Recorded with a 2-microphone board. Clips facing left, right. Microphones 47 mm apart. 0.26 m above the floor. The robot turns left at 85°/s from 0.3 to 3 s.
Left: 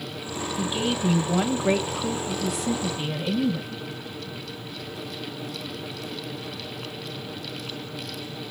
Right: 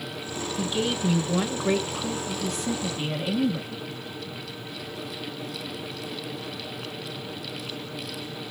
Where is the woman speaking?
175° left, 1.1 m; by 3.8 s 35° right, 1.1 m.